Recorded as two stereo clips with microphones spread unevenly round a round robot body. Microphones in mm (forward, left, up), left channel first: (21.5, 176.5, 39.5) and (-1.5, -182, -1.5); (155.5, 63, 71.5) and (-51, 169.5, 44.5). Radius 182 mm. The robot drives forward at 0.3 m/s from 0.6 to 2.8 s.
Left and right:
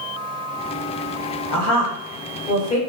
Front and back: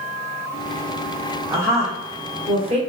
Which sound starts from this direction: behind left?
A woman speaking, at 1.5 s.